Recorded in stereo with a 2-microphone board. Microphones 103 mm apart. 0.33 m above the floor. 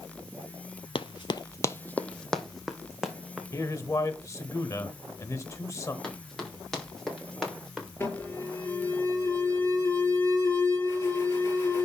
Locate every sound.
0.9 s running footsteps: 60° left (ahead or behind), 0.5 m; by 3.4 s 5° right (ahead or behind), 1.7 m
3.5 s a man speaking: 30° left (ahead or behind), 1.0 m
6.0 s running footsteps: 5° left (ahead or behind), 4.5 m; by 7.9 s centre (ahead or behind), 5.5 m
8.0 s an alarm: 20° left (ahead or behind), 6 m